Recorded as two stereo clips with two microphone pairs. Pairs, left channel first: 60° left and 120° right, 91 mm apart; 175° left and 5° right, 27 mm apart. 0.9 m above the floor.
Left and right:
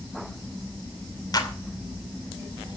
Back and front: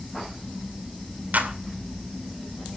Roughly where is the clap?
Ahead.